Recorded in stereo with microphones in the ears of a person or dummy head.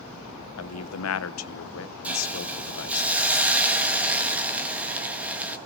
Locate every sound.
0.6 s a man speaking: 80° left, 0.9 m
2.0 s a hiss: 10° right (ahead or behind), 1.6 m